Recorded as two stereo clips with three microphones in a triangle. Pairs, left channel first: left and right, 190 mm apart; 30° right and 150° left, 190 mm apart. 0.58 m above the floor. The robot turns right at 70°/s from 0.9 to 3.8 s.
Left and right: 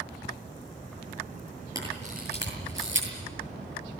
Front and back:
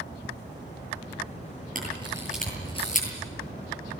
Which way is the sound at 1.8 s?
165° right.